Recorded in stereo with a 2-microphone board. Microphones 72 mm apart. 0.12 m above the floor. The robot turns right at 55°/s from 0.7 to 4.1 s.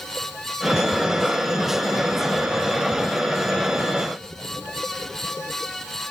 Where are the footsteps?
I don't hear footsteps.